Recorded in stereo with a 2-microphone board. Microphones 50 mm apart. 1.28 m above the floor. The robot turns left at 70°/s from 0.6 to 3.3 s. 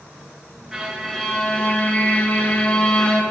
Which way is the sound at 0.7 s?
10° right (ahead or behind).